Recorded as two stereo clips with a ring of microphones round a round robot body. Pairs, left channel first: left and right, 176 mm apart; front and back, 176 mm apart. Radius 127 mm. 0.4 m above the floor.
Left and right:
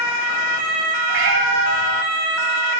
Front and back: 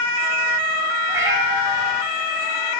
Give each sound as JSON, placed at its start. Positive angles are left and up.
{"t": 1.1, "sound": "a cat meowing", "azimuth_deg": -100, "distance_m": 8.5}